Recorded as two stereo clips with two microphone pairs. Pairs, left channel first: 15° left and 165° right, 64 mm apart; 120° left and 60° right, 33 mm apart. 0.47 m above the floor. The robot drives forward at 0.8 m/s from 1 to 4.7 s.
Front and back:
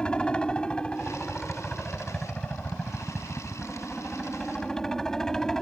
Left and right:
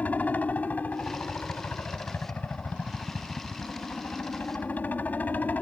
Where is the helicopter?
90° left; by 5.6 s 95° left.